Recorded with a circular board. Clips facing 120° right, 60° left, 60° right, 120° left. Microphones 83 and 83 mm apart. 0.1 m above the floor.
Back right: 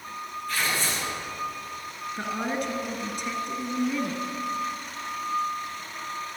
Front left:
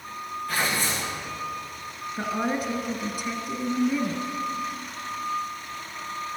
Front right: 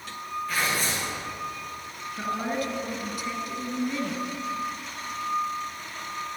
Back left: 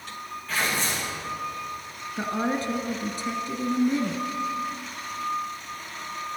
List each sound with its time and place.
0.5 s tearing paper: 25° left, 6 m
2.2 s a woman speaking: 140° left, 1.5 m